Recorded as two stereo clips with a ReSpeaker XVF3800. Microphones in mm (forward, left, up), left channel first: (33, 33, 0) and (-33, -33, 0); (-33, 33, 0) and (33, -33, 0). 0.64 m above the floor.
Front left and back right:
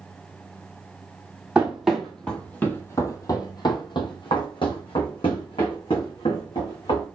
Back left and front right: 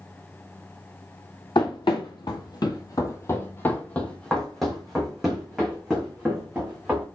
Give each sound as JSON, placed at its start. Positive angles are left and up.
{"t": 1.6, "sound": "running footsteps", "azimuth_deg": 145, "distance_m": 1.2}